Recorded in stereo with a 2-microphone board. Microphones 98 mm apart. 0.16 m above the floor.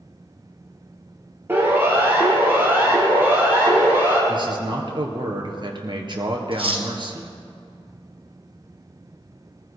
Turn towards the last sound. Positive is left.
turn(degrees=-65)  # may be behind; listen again after turning